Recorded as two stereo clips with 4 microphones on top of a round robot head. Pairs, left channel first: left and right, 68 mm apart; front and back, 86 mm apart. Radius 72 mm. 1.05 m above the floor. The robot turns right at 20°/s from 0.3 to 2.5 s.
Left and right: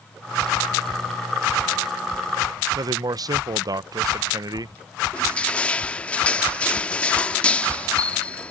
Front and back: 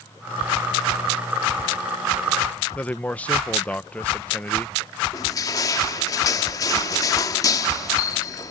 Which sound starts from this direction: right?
A man speaking, at 2.8 s.